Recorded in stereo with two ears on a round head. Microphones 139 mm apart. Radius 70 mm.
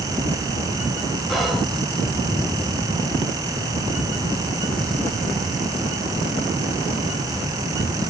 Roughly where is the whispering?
Centre.